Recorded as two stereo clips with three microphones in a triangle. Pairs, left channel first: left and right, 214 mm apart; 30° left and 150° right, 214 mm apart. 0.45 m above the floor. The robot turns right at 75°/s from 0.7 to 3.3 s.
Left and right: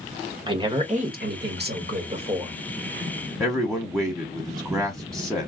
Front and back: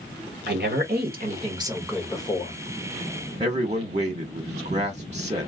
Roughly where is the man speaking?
Behind.